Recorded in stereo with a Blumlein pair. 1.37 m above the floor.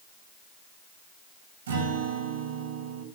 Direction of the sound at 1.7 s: 60° right.